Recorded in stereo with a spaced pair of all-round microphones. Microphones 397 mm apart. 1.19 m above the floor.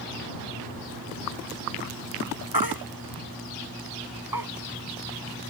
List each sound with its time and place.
2.5 s a baby crying: 60° right (ahead or behind)